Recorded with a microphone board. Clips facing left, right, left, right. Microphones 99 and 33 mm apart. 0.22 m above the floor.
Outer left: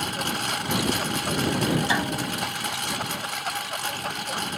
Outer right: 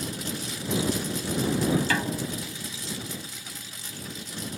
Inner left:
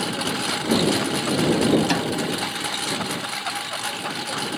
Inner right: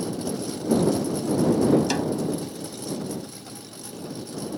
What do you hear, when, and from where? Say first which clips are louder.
0.0 s a lawn mower: outer left 5 dB, inner left 4 dB; 60° left (ahead or behind)
1.9 s a snare drum: outer left 2 dB, inner left 2 dB; 20° left (ahead or behind)